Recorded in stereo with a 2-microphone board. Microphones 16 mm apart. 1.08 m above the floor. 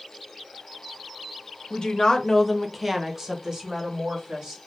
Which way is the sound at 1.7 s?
65° left (ahead or behind).